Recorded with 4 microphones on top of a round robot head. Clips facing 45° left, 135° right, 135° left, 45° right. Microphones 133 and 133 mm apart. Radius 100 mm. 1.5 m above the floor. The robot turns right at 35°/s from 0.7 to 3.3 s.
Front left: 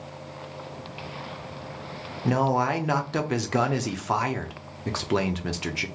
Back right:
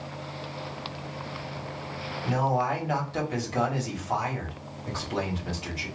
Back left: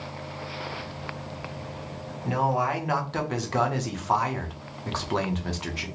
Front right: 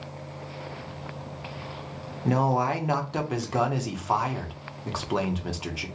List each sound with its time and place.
2.2 s a man speaking: straight ahead, 0.7 m; by 5.9 s 40° left, 0.7 m